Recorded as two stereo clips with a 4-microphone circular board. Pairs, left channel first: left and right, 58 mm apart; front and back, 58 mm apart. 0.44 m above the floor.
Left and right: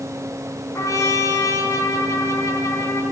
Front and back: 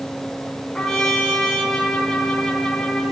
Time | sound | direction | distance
0.8 | a trumpet | 80° left | 4.5 m